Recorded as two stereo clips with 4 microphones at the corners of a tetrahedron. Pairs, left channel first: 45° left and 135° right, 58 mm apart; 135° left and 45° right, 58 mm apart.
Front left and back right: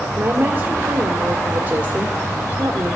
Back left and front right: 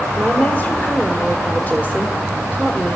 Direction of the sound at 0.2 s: Straight behind.